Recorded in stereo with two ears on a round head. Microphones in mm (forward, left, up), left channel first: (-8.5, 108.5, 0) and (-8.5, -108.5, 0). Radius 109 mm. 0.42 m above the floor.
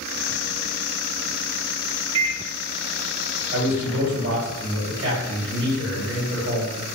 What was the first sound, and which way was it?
A microwave, 25° right (ahead or behind).